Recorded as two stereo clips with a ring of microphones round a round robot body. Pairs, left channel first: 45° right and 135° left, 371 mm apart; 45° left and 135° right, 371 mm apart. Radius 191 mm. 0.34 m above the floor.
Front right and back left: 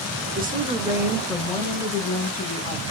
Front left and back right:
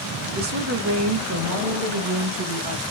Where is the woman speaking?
Straight behind, 1.1 m; by 2.8 s 110° right, 2 m.